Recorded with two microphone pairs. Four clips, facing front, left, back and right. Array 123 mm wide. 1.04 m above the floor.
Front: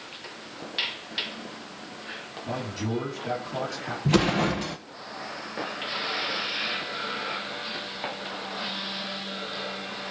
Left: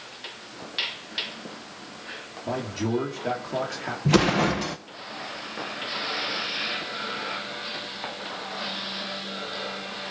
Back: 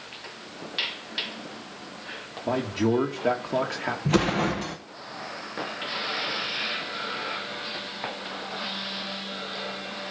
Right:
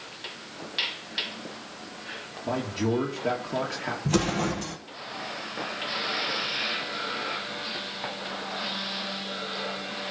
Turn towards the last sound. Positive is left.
turn(degrees=100)